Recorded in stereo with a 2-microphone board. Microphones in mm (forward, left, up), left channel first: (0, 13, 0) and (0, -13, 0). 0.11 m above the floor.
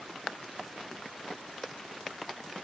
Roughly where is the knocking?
No knocking in this recording.